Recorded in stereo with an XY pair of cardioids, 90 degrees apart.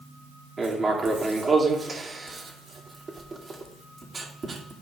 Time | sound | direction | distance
0.6 | writing | 40° right | 2.5 m